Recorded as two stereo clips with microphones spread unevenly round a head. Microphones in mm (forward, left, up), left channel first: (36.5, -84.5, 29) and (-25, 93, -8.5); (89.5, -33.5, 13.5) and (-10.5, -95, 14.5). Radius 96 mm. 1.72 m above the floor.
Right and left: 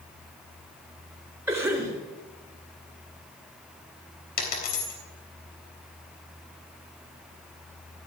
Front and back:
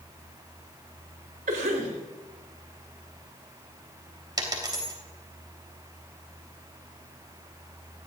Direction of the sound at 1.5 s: 175° right.